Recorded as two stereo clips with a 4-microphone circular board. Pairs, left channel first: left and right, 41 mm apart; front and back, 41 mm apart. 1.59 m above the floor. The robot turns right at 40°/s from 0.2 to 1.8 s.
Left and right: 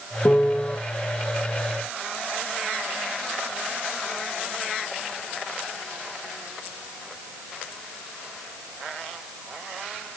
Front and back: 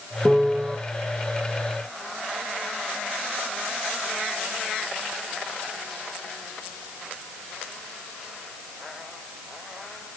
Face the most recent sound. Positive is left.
turn(degrees=165)